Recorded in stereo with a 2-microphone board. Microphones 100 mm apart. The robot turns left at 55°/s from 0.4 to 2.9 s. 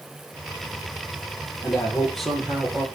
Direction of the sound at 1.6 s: 35° left.